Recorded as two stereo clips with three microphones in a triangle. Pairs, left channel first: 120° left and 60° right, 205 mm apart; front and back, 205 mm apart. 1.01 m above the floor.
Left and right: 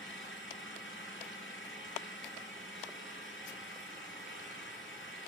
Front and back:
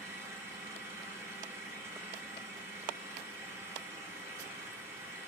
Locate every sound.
0.0 s an engine running: 105° left, 4.5 m